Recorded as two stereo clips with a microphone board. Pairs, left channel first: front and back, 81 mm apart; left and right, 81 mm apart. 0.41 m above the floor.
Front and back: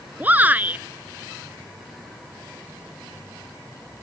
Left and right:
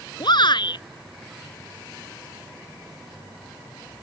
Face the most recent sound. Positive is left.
turn(degrees=110)